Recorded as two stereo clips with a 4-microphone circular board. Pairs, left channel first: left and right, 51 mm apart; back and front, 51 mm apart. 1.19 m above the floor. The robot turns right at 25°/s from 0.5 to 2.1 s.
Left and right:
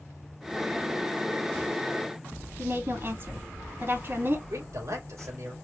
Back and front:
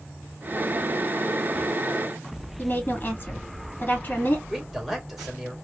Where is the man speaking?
90° right, 2.5 m.